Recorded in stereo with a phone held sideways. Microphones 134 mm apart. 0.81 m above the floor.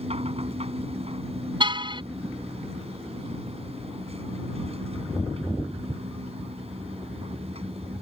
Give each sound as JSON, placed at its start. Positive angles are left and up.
{"t": 0.0, "sound": "a machine running", "side_deg": -45}
{"t": 1.6, "sound": "a car horn", "side_deg": -35}